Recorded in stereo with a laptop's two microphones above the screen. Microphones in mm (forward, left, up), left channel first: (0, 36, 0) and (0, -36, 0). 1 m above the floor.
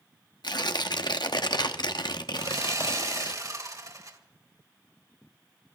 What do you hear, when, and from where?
0.4 s tearing paper: 85° left, 1.0 m
2.4 s sawing: 50° right (ahead or behind), 2 m